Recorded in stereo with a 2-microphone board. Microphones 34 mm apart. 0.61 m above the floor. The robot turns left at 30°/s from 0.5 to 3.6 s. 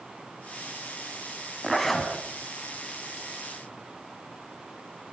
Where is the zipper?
Centre (ahead or behind), 3.5 m; by 2.1 s 15° left (ahead or behind), 3.5 m.